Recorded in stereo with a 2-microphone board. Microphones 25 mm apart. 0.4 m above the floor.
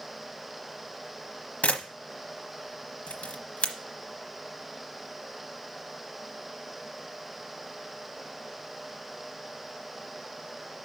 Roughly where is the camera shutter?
Left.